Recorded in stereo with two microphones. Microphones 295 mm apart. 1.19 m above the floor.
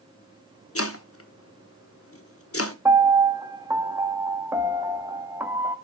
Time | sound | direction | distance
0.8 | chopping | 50° left (ahead or behind) | 1.0 m
2.9 | a piano | 10° right (ahead or behind) | 0.9 m